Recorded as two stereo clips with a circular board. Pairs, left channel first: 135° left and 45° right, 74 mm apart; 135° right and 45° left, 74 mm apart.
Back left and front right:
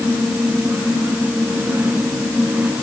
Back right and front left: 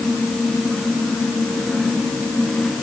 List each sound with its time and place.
Only background noise.